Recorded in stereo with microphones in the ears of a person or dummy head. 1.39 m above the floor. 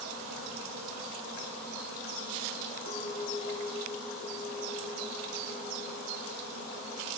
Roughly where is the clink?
Left.